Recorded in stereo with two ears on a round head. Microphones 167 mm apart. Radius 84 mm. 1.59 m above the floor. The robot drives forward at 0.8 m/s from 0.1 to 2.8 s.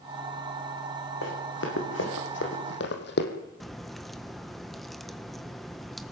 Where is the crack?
Centre (ahead or behind), 1.3 m.